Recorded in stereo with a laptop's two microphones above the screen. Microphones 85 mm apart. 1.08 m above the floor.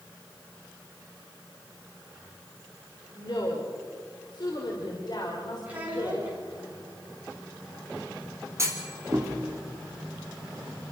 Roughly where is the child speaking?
Centre.